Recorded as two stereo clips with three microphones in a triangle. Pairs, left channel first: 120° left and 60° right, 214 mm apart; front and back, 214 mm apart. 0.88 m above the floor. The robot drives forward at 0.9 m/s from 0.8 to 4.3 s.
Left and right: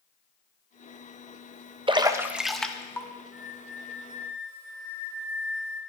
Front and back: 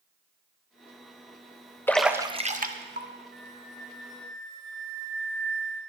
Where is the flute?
145° left, 1.8 m; by 5.8 s 155° left, 2.5 m.